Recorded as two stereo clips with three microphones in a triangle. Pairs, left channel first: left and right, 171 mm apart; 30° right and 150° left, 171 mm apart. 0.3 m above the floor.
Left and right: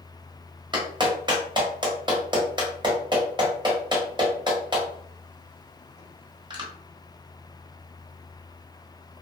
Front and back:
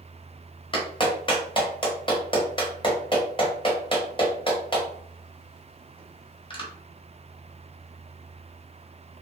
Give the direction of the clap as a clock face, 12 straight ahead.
2 o'clock.